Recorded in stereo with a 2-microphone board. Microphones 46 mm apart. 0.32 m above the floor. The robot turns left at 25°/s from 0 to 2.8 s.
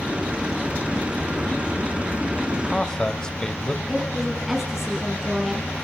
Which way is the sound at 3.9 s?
10° right (ahead or behind).